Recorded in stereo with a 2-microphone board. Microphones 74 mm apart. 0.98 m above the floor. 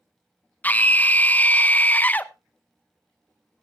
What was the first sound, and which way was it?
A scream, 25° left (ahead or behind).